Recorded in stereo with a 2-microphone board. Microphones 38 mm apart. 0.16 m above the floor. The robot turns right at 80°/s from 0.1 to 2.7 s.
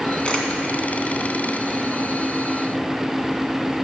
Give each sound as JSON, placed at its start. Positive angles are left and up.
{"t": 0.2, "sound": "a camera shutter", "side_deg": 30, "distance_m": 1.9}